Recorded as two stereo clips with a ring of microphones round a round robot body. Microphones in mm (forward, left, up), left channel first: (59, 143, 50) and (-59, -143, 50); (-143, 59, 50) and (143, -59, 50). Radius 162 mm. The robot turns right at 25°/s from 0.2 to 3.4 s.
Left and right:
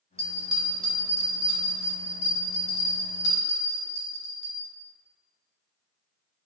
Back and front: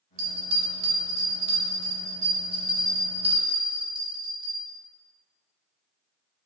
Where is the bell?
35° right, 0.8 m; by 4.6 s 45° left, 0.8 m.